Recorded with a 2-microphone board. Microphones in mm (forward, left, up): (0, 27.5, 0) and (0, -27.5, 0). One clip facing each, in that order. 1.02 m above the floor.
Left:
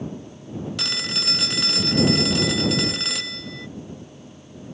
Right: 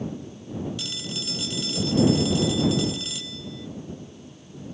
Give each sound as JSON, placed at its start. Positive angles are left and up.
{"t": 0.8, "sound": "a phone ringing", "side_deg": 75}